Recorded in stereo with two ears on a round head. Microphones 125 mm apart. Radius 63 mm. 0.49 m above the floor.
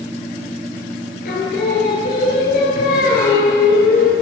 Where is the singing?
75° left (ahead or behind), 8 m.